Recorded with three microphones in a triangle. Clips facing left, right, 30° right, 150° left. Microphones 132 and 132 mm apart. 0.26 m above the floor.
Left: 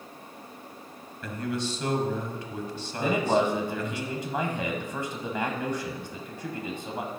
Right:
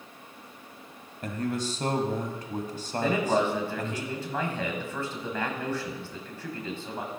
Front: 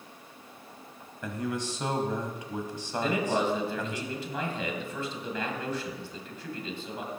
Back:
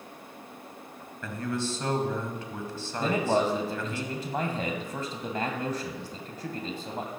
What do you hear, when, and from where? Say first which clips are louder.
1.2 s a man speaking: right 1 dB, back 1 dB; 95° right, 1.3 m
3.0 s a man speaking: left 1 dB, back 2 dB; 155° left, 1.5 m